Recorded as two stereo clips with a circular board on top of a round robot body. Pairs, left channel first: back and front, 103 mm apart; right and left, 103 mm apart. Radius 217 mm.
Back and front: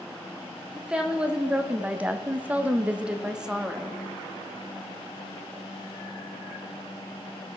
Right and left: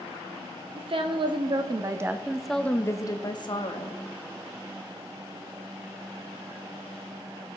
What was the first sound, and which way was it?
A woman speaking, 80° left.